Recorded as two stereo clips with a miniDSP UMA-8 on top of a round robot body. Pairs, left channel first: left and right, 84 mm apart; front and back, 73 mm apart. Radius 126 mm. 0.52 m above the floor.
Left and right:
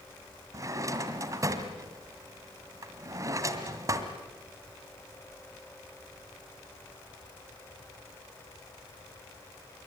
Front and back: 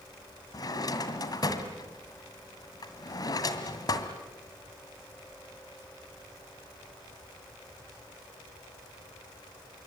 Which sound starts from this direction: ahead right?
A drawer, at 0.5 s.